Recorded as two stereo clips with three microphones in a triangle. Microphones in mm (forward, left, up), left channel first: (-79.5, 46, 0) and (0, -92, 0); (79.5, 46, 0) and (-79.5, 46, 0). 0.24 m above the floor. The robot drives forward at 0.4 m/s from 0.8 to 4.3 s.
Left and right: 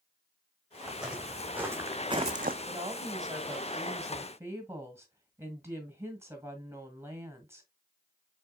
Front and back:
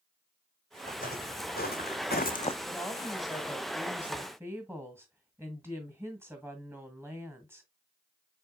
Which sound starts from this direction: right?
A woman speaking, at 2.7 s.